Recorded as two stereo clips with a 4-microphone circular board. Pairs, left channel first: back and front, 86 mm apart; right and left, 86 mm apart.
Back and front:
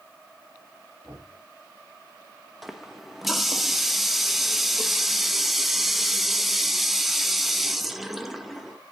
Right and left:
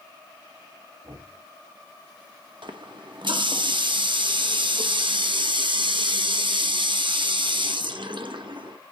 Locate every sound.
1.0 s knocking: 65° left, 4.5 m
2.6 s a running tap: 90° left, 0.9 m